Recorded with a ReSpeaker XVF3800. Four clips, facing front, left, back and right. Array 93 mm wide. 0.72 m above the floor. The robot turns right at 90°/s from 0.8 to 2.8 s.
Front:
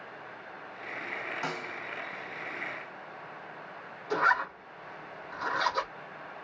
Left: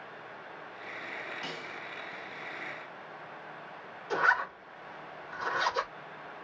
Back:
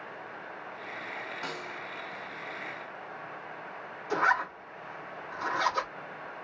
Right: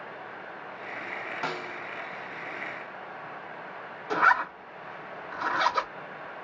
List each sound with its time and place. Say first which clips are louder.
1.4 s a snare drum: right 7 dB, front 2 dB; 75° right, 0.8 m; by 1.8 s 40° right, 0.8 m
4.1 s a zipper: right 4 dB, even; 105° right, 2.5 m